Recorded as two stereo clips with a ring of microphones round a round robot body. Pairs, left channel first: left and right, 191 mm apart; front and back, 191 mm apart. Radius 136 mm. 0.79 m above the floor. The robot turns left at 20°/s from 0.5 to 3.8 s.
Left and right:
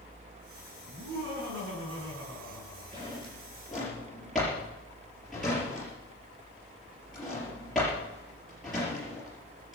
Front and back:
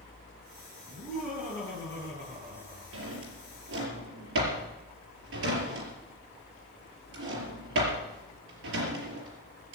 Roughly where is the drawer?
Behind.